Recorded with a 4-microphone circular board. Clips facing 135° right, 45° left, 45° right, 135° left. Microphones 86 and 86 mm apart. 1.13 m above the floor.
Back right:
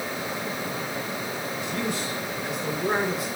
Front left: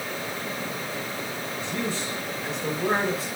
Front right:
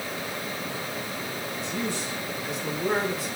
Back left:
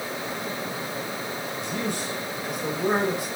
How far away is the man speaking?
About 6 m.